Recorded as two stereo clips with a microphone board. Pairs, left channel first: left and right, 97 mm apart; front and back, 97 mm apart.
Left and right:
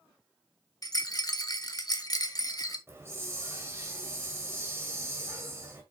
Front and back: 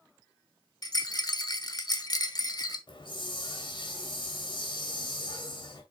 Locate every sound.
0.8 s a rattle: 45° left, 1.0 m
2.9 s a hiss: 25° right, 2 m